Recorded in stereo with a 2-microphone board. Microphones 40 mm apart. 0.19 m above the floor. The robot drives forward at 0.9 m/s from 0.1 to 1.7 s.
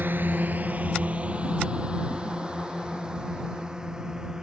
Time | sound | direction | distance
0.0 | a drone | 60° right (ahead or behind) | ?